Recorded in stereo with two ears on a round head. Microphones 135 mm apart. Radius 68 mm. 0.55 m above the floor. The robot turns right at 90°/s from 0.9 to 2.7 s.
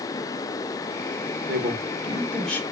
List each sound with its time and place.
1.5 s a man speaking: 85° right, 1.3 m; by 2.6 s 15° left, 1.3 m